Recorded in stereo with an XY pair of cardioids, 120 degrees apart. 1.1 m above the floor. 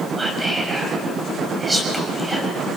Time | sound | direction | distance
0.2 | whispering | 20° right | 7 m